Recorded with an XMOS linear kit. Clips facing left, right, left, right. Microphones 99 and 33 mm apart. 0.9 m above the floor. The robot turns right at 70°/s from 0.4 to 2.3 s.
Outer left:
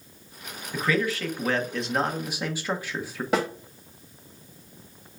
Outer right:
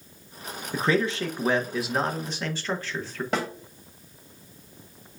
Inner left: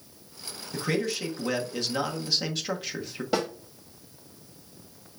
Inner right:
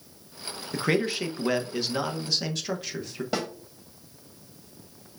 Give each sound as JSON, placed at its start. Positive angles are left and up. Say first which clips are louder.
{"t": 0.7, "sound": "a man speaking", "louder": "outer right 1 dB, inner right 3 dB", "side_deg": -30, "distance_m": 0.9}
{"t": 3.3, "sound": "a snare drum", "louder": "outer left 4 dB, inner left 3 dB", "side_deg": 5, "distance_m": 2.0}